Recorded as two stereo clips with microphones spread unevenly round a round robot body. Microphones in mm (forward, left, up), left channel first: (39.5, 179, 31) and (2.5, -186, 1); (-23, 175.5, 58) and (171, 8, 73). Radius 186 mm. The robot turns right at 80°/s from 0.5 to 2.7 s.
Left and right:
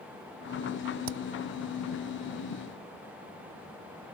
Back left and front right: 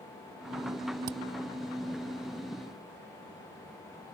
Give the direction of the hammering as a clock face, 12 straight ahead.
2 o'clock.